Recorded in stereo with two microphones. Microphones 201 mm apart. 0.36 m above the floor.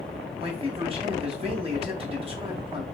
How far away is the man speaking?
About 1.2 m.